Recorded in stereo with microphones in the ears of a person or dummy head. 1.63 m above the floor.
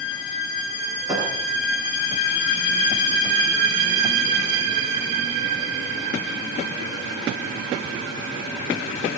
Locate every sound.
1.1 s a thud: 20° right (ahead or behind), 6.5 m